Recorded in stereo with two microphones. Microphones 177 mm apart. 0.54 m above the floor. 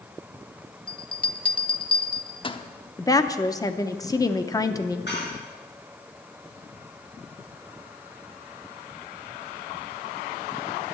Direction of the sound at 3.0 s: 20° left (ahead or behind).